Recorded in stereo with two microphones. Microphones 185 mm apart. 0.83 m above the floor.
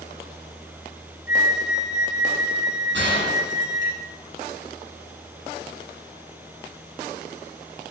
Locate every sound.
1.3 s a flute: 60° left (ahead or behind), 1.0 m
2.9 s a gunshot: 85° right, 7.5 m